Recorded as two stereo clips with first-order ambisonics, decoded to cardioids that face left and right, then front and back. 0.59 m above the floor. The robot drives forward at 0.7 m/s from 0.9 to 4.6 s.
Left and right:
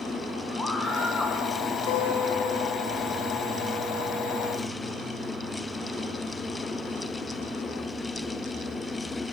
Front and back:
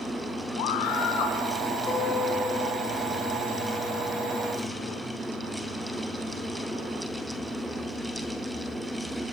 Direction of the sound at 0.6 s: 5° left.